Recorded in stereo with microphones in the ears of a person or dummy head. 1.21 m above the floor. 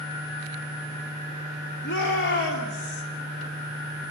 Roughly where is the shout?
Left.